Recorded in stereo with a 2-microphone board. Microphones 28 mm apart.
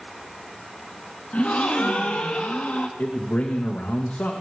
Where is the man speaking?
90° left, 2.5 m.